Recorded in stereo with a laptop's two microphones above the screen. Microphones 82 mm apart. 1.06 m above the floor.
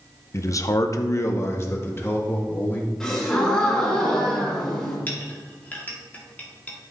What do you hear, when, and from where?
0.3 s a man speaking: 35° left (ahead or behind), 0.6 m; by 2.9 s 25° left (ahead or behind), 3 m
3.0 s a gasp: 5° left (ahead or behind), 1.8 m
5.1 s a clink: 20° left (ahead or behind), 1.7 m